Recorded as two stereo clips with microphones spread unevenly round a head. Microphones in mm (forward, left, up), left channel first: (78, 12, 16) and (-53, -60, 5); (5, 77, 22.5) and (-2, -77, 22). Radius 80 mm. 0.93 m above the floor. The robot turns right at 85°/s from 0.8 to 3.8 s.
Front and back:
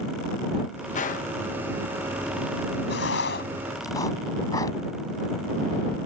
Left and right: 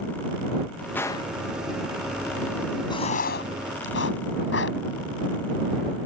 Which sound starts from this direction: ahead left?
Writing, at 2.9 s.